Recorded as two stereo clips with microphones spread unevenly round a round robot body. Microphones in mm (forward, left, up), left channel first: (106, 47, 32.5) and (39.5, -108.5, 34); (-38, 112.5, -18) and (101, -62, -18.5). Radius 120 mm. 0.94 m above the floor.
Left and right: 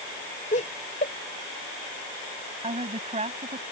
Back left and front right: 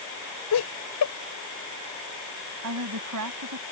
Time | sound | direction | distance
0.5 | laughter | 125° left | ?
2.6 | a woman speaking | 65° right | ?